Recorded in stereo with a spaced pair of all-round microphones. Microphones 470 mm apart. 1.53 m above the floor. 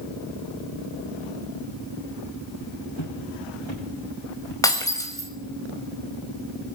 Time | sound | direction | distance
3.0 | footsteps | 65° left (ahead or behind) | 6.5 m
4.6 | breaking glass | 5° left (ahead or behind) | 4.5 m